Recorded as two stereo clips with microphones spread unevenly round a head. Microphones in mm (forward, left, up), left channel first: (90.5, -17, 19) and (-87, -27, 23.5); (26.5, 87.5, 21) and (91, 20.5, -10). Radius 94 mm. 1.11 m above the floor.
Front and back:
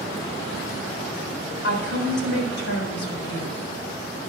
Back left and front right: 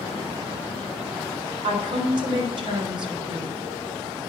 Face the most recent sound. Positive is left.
turn(degrees=-15)